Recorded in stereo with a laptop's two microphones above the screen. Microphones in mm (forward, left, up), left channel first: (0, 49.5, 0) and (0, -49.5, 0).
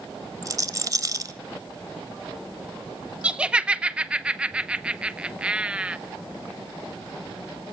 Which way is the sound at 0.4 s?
35° right (ahead or behind).